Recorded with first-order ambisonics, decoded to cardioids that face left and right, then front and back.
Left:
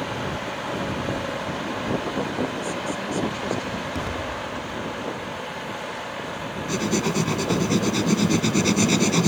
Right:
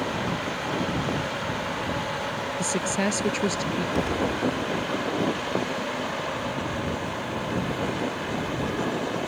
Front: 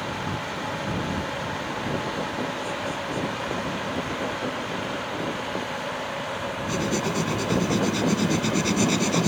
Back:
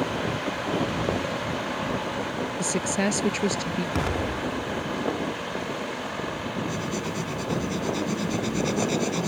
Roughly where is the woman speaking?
Behind right.